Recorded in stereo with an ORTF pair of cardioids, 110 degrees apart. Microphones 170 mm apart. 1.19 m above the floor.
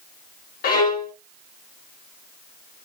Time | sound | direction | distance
0.6 | a violin | 65° left | 0.9 m